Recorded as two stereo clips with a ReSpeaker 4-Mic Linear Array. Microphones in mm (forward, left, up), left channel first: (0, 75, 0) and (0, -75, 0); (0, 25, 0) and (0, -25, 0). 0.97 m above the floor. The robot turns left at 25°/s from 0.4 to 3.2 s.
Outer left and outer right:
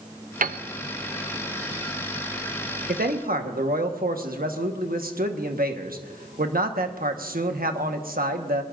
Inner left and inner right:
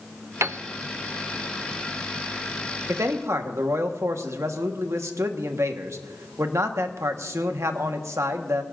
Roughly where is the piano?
Right.